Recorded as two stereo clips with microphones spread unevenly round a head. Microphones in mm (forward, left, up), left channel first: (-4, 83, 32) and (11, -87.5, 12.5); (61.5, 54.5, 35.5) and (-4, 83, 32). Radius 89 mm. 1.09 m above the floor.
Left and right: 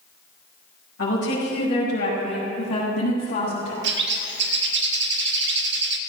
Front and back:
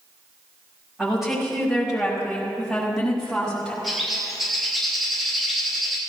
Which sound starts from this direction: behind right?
A bird, at 3.8 s.